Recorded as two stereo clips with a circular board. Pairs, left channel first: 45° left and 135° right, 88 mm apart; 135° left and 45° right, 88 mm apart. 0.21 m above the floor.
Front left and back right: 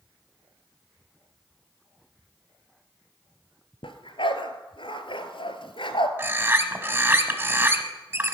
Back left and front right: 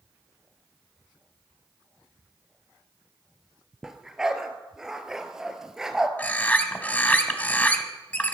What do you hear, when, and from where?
3.8 s a dog barking: 40° left, 1.2 m
6.2 s a bird: 170° right, 1.2 m